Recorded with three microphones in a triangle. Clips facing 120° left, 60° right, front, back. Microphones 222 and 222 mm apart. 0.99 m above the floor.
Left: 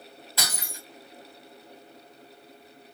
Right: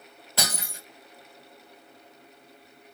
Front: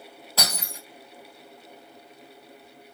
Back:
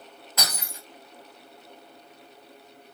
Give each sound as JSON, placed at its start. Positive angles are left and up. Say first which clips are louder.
{"t": 0.4, "sound": "breaking glass", "louder": "right 4 dB, front 3 dB", "azimuth_deg": -55, "distance_m": 2.5}